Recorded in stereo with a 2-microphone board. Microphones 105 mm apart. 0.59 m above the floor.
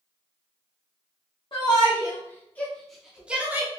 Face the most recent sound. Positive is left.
turn(degrees=-20)  # may be behind; listen again after turning